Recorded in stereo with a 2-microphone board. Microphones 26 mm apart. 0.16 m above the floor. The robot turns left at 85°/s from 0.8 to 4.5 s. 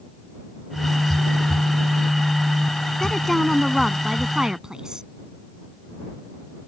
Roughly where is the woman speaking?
Left.